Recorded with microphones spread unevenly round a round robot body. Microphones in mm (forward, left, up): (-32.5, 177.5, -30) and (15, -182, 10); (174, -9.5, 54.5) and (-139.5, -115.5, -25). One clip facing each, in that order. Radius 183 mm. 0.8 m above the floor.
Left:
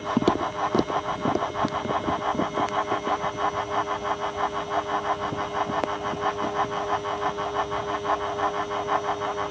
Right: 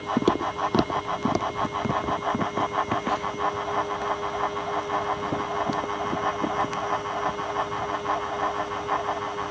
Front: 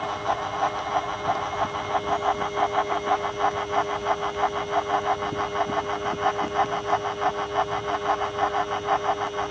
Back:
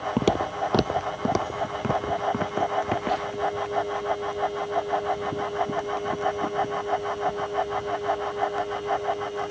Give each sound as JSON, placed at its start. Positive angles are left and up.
{"t": 0.2, "sound": "footsteps", "azimuth_deg": 180}